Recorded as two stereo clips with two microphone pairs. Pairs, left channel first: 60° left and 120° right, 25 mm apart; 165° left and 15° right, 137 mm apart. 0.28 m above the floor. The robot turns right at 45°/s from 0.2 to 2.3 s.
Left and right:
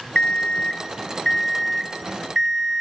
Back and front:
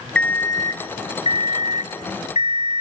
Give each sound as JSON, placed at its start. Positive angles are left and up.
{"t": 0.1, "sound": "an alarm clock", "azimuth_deg": 90, "distance_m": 1.0}